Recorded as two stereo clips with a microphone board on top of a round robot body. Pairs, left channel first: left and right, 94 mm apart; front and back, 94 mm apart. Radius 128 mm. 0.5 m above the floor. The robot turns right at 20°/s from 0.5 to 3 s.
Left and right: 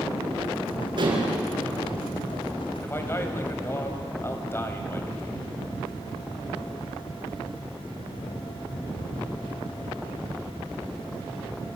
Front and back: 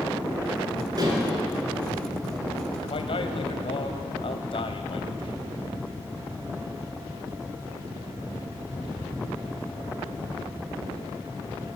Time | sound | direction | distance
1.0 | dishes clattering | 130° right | 5 m
2.8 | a man speaking | 20° left | 3 m